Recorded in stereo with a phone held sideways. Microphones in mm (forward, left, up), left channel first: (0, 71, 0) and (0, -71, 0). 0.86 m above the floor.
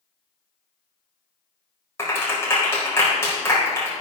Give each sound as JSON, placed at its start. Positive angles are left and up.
{"t": 2.0, "sound": "a clap", "side_deg": 20, "distance_m": 4.0}